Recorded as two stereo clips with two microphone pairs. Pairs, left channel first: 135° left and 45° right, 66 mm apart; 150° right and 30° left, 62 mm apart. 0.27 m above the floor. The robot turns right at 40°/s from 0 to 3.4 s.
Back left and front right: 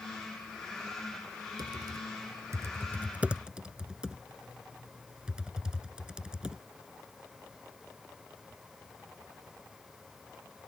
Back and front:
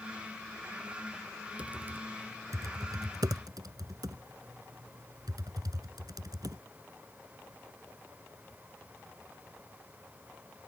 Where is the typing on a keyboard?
40° right; by 6.6 s 30° left.